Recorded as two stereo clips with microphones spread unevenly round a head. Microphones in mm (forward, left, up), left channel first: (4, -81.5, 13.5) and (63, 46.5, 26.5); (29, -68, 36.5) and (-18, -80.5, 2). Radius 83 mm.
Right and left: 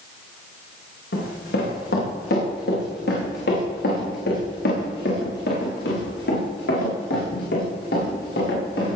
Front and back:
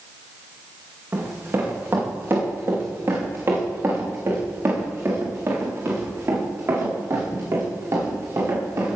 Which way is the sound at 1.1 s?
120° right.